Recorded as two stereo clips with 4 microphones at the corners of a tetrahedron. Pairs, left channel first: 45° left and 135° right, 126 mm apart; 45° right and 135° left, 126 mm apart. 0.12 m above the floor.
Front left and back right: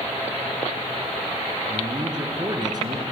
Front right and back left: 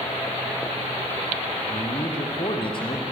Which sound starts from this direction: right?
A man speaking, at 1.7 s.